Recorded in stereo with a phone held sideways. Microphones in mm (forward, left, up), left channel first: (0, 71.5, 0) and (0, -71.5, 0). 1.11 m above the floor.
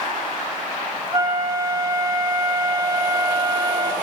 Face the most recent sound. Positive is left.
turn(degrees=-25)  # may be behind; listen again after turning